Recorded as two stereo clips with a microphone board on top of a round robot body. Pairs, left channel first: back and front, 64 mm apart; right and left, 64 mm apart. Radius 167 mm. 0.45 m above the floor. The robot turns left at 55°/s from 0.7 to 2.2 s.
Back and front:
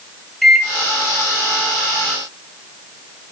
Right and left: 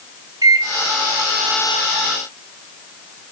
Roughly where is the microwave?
Left.